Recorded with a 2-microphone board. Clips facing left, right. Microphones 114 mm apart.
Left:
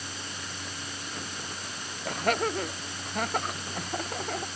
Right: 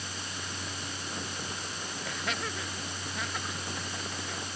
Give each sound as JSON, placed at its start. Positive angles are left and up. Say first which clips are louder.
{"t": 2.0, "sound": "laughter", "louder": "left 10 dB", "side_deg": 50}